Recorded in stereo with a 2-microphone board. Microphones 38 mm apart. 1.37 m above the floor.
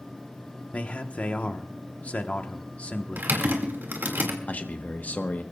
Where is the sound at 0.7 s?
40° left (ahead or behind), 1.2 m.